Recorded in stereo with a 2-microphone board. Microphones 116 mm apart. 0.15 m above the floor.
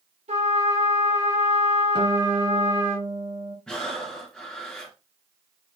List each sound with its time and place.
0.3 s a trumpet: 75° right (ahead or behind), 3 m
1.9 s a guitar: 40° right (ahead or behind), 2 m
3.7 s breathing: 5° left (ahead or behind), 3 m